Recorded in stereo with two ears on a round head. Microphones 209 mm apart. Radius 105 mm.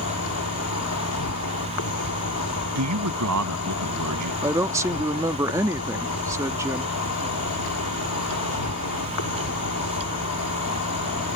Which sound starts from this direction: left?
An insect, at 0.0 s.